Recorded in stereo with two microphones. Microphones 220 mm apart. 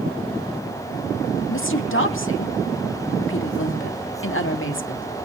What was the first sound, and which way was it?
A woman speaking, 65° left (ahead or behind).